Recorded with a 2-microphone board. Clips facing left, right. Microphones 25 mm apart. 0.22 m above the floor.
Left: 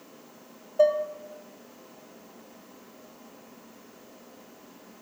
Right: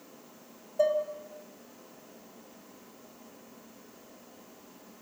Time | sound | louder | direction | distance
0.8 | dishes clattering | left 5 dB | 25° left (ahead or behind) | 0.7 m